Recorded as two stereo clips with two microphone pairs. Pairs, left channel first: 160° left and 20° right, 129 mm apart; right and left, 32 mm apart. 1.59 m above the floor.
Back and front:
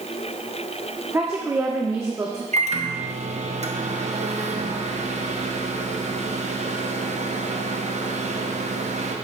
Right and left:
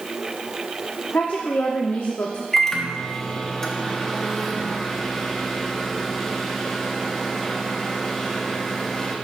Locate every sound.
1.1 s a woman speaking: 90° right, 0.7 m
2.5 s a microwave: 15° right, 0.8 m